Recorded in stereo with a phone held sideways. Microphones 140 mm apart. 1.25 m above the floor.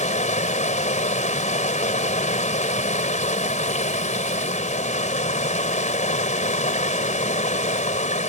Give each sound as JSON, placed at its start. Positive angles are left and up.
{"t": 0.0, "sound": "running water", "side_deg": 60}